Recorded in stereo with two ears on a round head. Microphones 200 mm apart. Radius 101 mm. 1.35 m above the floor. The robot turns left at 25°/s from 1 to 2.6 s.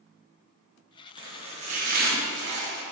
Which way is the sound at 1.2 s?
20° right.